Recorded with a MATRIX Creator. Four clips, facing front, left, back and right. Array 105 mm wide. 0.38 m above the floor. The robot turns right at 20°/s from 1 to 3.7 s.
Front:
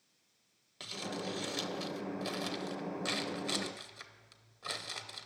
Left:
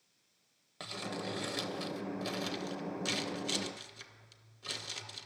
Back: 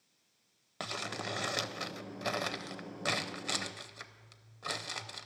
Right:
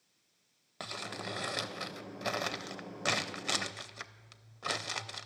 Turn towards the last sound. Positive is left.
turn(degrees=-105)